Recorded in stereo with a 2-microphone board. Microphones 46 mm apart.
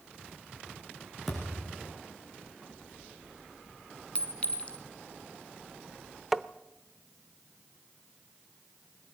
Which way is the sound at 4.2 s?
30° left (ahead or behind).